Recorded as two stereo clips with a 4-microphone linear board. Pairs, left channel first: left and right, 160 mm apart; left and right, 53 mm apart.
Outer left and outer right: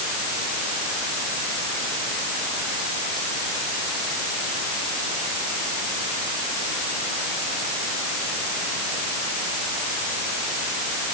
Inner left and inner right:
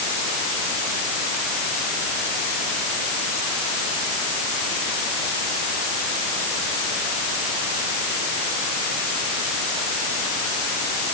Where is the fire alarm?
I don't hear a fire alarm.